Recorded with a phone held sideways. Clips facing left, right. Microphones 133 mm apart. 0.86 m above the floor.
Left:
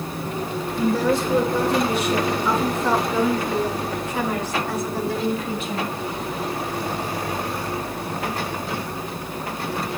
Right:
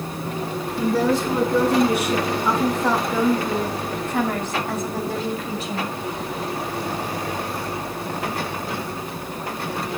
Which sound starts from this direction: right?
A woman speaking, at 0.8 s.